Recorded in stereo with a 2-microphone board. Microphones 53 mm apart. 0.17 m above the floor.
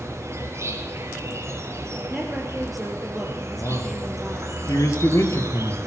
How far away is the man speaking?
About 3.5 m.